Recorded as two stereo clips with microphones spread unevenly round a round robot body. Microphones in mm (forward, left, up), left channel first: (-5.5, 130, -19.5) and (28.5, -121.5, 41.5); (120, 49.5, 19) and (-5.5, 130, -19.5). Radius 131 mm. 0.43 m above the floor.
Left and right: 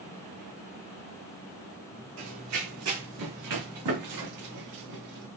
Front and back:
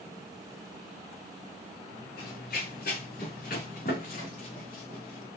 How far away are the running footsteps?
About 1.4 m.